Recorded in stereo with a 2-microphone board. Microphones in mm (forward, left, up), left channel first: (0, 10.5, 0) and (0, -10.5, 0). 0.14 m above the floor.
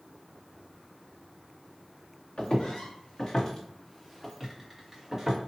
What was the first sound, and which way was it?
Footsteps, 50° left (ahead or behind).